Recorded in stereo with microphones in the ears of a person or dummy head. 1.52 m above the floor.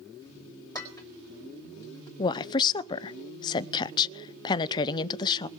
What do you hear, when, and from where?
0.8 s dishes clattering: 20° left (ahead or behind), 3.5 m
2.2 s a woman speaking: 25° left (ahead or behind), 0.6 m